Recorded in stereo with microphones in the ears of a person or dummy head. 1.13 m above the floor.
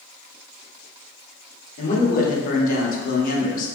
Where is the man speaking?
45° left (ahead or behind), 1.0 m.